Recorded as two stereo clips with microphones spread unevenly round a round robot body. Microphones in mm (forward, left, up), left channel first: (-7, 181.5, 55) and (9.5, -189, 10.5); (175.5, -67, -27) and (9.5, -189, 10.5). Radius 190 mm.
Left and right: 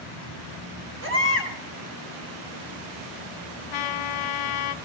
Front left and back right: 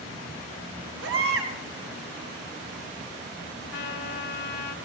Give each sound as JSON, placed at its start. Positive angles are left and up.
{"t": 1.0, "sound": "a baby crying", "azimuth_deg": -150, "distance_m": 2.5}
{"t": 3.7, "sound": "a trumpet", "azimuth_deg": 70, "distance_m": 0.9}